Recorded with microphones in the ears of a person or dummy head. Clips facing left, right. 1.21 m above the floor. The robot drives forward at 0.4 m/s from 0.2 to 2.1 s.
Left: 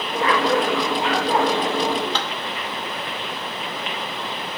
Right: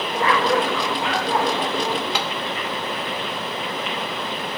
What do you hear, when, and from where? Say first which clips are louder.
2.1 s tapping: right 1 dB; 10° right (ahead or behind), 0.5 m